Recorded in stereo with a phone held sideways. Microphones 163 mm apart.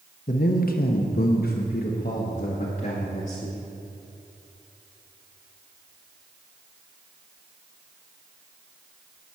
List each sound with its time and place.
0.3 s a man speaking: 50° left (ahead or behind), 0.8 m; by 3.6 s 40° left (ahead or behind), 1.8 m